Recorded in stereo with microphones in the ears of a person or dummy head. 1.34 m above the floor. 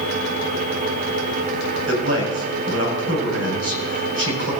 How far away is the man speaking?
About 5 m.